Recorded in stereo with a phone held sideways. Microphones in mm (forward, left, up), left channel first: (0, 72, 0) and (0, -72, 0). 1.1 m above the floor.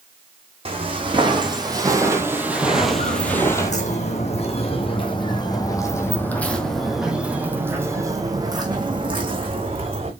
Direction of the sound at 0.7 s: 40° right (ahead or behind).